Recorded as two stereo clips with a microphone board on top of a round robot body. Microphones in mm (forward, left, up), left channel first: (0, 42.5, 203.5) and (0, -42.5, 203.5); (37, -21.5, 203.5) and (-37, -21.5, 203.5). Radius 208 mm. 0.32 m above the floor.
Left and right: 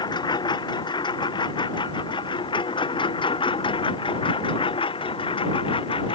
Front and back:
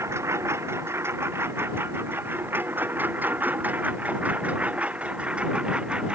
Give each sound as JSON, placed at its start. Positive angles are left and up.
{"t": 0.0, "sound": "a lawn mower", "azimuth_deg": 125}